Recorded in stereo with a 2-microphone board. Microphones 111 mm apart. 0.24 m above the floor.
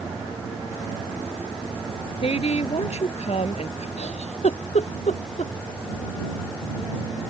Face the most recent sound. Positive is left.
turn(degrees=80)